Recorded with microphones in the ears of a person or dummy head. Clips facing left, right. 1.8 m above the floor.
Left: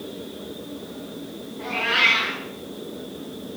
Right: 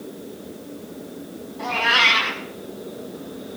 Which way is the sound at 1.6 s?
75° right (ahead or behind).